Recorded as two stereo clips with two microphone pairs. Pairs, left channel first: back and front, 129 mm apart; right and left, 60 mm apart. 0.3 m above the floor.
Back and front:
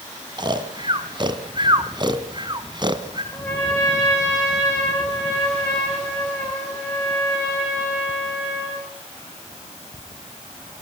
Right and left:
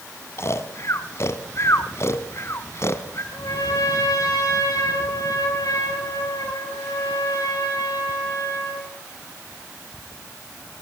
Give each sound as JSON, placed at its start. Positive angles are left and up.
{"t": 0.4, "sound": "snoring", "azimuth_deg": -50, "distance_m": 1.2}
{"t": 3.3, "sound": "a trumpet", "azimuth_deg": -105, "distance_m": 6.0}